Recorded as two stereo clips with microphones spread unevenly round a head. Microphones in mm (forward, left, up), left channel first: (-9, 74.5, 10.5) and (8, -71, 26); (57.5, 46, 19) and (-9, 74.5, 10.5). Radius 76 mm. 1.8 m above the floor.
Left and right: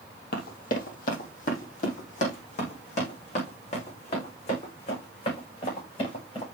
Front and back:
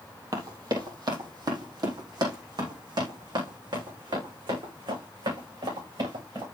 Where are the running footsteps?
120° left, 3.5 m; by 6.4 s 150° left, 11.5 m.